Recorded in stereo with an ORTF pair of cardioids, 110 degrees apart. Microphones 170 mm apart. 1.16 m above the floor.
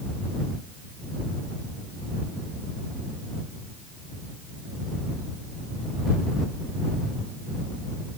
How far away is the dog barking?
I don't hear a dog barking.